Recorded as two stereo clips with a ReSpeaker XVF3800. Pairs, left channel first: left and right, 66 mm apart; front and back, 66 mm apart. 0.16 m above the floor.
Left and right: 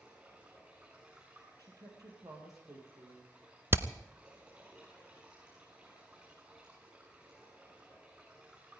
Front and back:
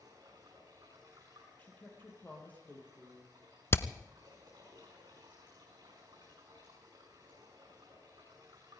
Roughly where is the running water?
Behind.